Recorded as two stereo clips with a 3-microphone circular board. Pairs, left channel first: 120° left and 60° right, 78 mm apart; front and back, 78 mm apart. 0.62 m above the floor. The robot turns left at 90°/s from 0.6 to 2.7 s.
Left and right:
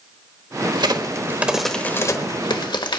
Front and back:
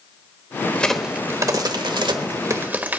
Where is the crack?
70° right, 1.0 m; by 3.0 s 115° left, 1.0 m.